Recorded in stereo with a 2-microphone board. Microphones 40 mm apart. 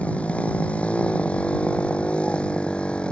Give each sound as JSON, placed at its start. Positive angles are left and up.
{"t": 0.0, "sound": "a motorcycle", "side_deg": 35}